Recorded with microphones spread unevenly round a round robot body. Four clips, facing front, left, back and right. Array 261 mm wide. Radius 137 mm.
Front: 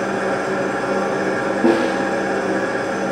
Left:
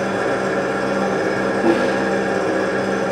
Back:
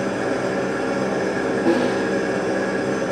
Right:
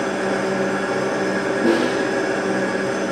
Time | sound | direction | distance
0.0 | an engine running | 85° left | 0.9 m
1.6 | a snare drum | 10° left | 1.4 m